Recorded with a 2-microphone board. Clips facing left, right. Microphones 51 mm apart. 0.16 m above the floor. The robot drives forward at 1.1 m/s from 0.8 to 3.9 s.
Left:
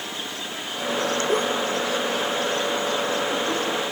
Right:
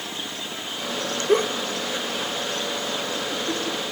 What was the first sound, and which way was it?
A giggle, 30° right (ahead or behind).